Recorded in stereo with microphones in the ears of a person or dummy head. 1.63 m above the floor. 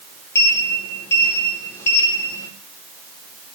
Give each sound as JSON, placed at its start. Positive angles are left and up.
{"t": 0.3, "sound": "a sliding door", "side_deg": 15, "distance_m": 3.5}